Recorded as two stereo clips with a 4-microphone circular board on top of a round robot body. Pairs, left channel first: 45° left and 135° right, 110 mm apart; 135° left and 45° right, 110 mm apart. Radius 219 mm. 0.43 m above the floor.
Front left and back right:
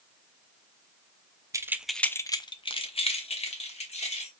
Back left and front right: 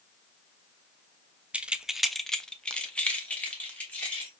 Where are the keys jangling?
115° right, 0.7 m; by 4.3 s 55° left, 1.7 m.